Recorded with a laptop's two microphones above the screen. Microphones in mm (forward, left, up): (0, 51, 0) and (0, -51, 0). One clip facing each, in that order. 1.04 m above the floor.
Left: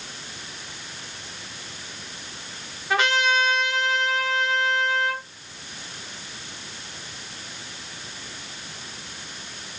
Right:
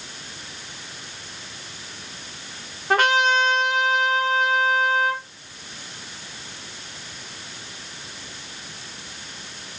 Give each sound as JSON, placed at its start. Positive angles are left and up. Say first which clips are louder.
{"t": 2.9, "sound": "a trumpet", "louder": "right 3 dB", "side_deg": -45, "distance_m": 0.9}